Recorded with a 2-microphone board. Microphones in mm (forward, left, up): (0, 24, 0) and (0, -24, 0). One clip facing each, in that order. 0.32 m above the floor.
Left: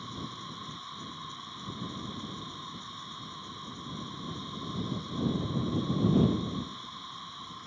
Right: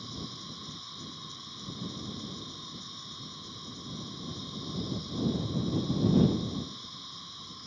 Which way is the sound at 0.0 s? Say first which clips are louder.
Left 2 dB; 25° left (ahead or behind).